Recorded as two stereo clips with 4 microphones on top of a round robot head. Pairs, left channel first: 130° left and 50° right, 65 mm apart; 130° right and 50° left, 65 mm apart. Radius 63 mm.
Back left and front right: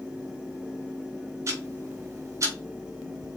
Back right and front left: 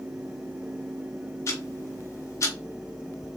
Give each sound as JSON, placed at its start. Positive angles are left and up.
{"t": 1.5, "sound": "ticking", "azimuth_deg": -90, "distance_m": 3.0}